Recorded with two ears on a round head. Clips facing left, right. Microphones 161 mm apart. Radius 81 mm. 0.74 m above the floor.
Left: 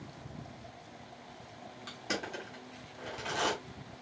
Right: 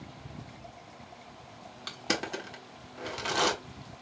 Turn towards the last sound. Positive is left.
turn(degrees=-65)  # may be behind; listen again after turning